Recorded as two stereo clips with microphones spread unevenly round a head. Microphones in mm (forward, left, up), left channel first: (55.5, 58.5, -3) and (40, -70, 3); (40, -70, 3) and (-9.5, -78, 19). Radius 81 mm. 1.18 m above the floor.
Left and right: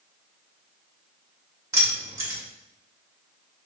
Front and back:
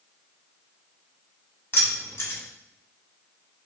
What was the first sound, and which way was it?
Keys jangling, 30° right.